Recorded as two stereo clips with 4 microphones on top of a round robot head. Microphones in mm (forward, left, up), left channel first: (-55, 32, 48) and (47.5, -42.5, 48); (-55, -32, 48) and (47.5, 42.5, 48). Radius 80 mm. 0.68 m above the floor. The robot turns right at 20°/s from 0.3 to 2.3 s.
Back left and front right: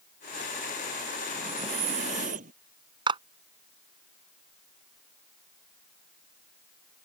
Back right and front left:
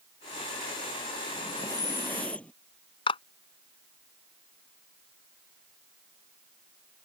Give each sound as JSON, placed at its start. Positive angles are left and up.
{"t": 1.3, "sound": "breathing", "azimuth_deg": -80}
{"t": 3.1, "sound": "a clap", "azimuth_deg": -90}